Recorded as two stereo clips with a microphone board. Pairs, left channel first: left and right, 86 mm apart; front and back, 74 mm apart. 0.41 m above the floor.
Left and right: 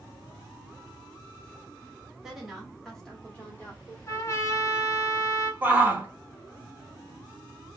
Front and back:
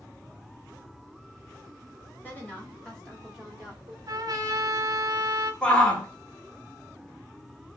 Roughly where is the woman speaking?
Ahead.